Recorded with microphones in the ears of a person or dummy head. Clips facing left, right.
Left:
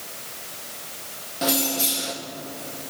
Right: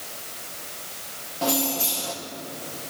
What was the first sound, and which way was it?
Keys jangling, 30° left (ahead or behind).